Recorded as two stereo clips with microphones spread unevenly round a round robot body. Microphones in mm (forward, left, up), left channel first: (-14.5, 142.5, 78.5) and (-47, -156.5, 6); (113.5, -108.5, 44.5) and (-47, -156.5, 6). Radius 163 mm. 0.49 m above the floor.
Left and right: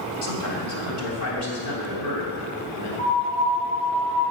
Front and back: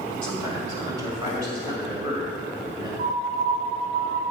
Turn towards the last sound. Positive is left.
turn(degrees=150)